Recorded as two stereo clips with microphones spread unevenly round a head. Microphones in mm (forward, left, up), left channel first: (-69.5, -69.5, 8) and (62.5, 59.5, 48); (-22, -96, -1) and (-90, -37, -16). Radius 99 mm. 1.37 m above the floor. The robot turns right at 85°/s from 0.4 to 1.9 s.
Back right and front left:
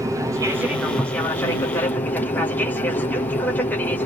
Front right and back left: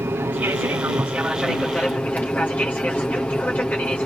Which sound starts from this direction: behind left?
An aircraft, at 0.0 s.